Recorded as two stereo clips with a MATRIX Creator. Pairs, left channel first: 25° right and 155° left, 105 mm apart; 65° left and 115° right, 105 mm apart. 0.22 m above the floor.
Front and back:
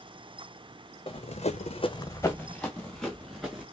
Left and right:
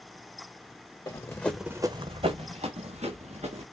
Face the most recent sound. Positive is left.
turn(degrees=-115)